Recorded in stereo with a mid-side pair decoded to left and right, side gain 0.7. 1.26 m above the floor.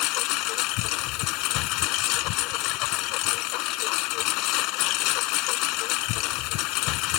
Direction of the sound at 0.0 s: 65° left.